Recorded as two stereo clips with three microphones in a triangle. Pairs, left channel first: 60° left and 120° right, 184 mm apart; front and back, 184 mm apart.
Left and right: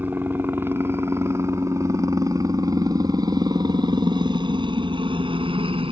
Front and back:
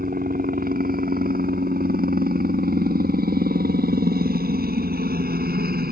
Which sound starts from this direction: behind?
A helicopter, at 0.0 s.